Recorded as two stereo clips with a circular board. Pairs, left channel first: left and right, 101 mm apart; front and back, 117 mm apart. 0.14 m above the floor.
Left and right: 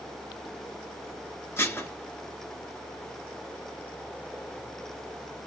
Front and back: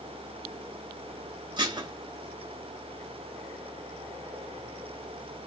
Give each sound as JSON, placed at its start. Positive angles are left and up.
{"t": 1.6, "sound": "dishes clattering", "azimuth_deg": 145, "distance_m": 1.2}